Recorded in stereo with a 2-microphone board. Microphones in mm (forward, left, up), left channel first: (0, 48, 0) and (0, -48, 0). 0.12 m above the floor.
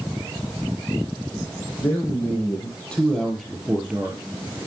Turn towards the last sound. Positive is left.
turn(degrees=-15)  # may be behind; listen again after turning